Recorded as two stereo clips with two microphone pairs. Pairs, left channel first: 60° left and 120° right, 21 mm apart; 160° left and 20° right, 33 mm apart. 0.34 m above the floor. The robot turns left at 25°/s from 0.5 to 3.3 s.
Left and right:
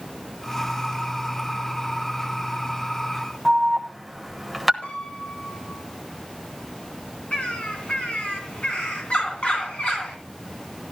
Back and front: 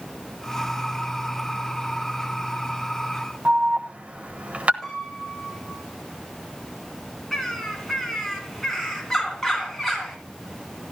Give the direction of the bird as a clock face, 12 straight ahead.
9 o'clock.